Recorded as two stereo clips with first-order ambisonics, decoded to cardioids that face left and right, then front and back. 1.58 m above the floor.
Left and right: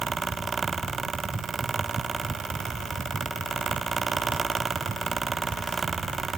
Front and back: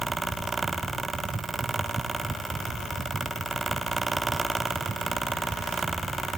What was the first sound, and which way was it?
Only background noise.